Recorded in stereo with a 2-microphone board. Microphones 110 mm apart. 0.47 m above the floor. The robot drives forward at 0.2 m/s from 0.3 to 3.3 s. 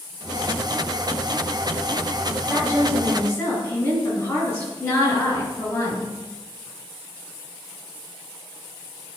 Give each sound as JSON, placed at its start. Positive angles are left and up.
{"t": 2.5, "sound": "a woman speaking", "side_deg": 25, "distance_m": 3.0}
{"t": 4.8, "sound": "a woman speaking", "side_deg": 20, "distance_m": 3.0}